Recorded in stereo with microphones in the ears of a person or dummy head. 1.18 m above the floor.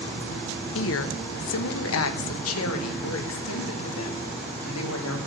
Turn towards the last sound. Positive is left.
turn(degrees=85)